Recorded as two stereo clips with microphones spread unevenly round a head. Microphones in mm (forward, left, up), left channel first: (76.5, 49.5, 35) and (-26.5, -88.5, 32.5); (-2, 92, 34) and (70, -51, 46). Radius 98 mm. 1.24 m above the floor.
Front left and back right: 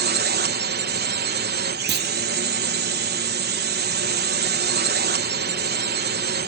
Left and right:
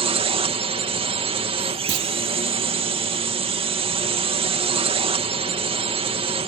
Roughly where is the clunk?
Right.